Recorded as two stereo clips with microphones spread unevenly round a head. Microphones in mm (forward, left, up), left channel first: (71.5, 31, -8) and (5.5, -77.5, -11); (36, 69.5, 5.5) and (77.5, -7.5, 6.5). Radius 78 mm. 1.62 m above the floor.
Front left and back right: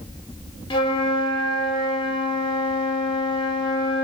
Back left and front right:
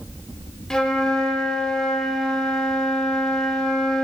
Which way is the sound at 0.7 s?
40° left.